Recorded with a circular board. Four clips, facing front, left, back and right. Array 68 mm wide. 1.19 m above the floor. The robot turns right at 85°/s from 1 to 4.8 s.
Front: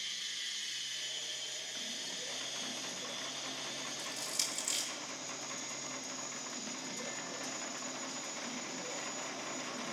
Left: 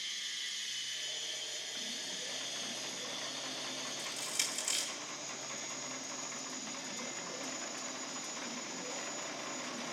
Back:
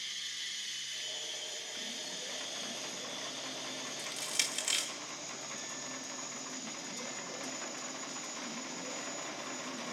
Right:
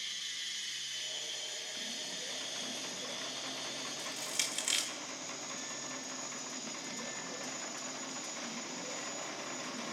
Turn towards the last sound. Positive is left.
turn(degrees=-125)